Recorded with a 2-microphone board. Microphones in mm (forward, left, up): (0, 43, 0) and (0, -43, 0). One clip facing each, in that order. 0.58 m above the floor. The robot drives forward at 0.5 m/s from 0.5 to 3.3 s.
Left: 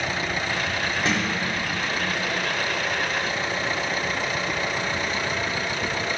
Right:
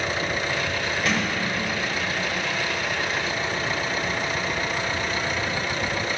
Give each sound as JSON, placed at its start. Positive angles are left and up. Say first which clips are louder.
{"t": 1.1, "sound": "a sliding door", "louder": "even", "side_deg": 30, "distance_m": 1.4}